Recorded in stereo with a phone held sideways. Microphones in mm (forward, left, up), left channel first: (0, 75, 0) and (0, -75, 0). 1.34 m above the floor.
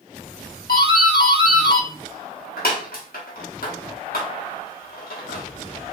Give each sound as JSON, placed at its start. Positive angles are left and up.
{"t": 0.7, "sound": "a doorbell", "side_deg": 80, "distance_m": 1.6}